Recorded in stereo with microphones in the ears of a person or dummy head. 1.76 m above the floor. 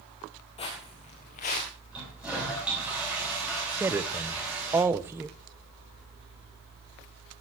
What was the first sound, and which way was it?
Footsteps, 25° left (ahead or behind).